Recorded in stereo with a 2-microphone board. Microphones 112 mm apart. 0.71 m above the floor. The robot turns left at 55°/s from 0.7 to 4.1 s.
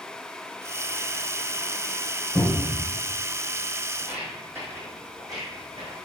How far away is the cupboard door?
About 1.2 m.